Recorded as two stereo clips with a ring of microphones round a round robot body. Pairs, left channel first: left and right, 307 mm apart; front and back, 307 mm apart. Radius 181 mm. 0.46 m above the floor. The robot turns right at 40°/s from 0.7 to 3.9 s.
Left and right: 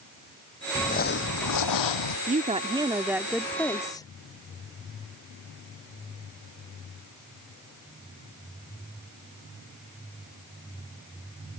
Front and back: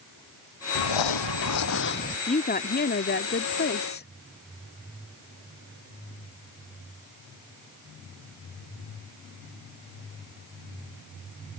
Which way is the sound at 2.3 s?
45° right.